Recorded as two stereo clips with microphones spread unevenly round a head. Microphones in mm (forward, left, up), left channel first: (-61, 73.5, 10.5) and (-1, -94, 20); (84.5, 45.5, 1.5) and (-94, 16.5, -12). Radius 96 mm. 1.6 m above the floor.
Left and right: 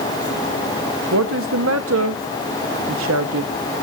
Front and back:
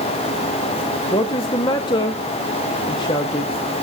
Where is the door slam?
I don't hear a door slam.